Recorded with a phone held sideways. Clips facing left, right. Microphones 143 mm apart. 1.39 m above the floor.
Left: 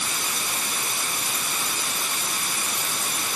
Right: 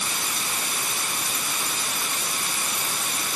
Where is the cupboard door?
No cupboard door in this recording.